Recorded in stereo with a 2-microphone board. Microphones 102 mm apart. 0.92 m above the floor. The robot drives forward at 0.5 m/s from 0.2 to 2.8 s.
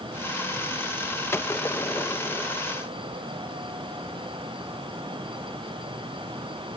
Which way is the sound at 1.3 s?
25° left (ahead or behind).